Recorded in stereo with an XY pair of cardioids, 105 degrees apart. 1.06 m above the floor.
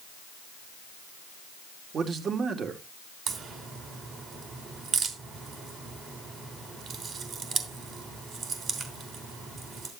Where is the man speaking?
50° right, 2.5 m.